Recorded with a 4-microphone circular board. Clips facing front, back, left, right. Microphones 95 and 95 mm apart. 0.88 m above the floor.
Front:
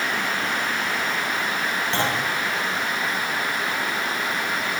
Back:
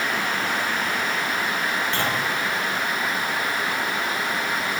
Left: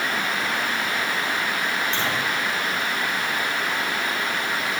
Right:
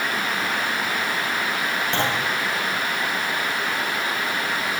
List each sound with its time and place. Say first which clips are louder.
1.9 s a clunk: front 1 dB, right 2 dB; 65° right, 10 m